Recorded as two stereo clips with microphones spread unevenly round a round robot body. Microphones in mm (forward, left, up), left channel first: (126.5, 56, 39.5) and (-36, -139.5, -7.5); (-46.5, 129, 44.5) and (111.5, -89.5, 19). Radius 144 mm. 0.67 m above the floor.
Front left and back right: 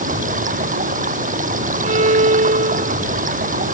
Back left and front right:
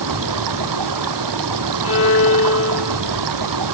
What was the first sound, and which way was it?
Running water, 70° right.